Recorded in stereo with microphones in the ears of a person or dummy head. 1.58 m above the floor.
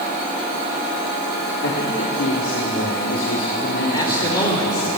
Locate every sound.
1.6 s a man speaking: 80° left, 4 m
3.9 s a man speaking: 25° left (ahead or behind), 4.5 m